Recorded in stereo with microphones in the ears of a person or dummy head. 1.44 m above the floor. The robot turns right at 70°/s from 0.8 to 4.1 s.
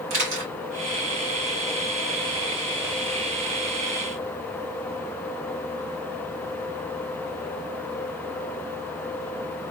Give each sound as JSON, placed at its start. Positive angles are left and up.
{"t": 0.1, "sound": "a camera shutter", "side_deg": -60, "distance_m": 3.0}